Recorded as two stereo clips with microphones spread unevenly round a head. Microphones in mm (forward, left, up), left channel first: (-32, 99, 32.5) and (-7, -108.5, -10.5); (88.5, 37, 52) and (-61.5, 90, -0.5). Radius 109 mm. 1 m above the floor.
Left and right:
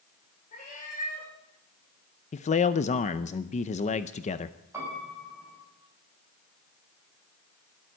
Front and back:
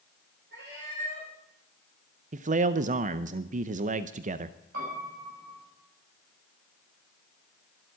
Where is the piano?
160° right, 7 m.